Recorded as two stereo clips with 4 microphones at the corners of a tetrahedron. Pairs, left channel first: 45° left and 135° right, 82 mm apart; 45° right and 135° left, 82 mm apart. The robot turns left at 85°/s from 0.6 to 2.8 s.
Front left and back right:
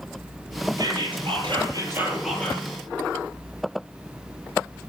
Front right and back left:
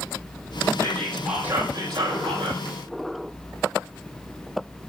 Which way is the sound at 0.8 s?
95° right.